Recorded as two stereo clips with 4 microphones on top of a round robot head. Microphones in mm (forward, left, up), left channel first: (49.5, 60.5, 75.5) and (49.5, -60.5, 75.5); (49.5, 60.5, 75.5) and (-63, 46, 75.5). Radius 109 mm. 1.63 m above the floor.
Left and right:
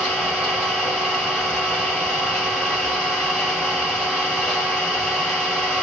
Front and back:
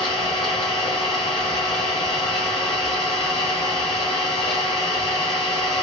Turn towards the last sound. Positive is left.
turn(degrees=-15)